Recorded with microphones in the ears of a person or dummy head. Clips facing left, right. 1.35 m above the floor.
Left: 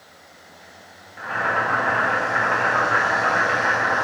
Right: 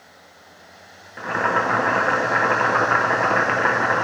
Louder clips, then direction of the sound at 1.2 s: Right 3 dB; 60° right (ahead or behind).